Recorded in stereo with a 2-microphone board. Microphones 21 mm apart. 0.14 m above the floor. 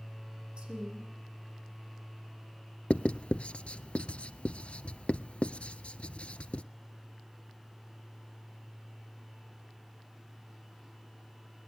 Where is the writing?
65° left (ahead or behind), 0.7 m.